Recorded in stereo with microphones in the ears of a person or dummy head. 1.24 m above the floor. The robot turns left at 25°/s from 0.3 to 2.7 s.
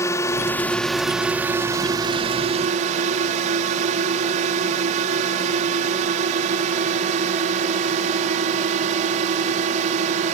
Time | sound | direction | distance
0.0 | a drone | 20° left | ?